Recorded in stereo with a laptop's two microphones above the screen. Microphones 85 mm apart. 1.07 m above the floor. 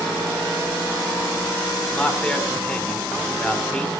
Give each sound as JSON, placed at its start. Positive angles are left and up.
{"t": 1.9, "sound": "a man speaking", "side_deg": 10, "distance_m": 4.5}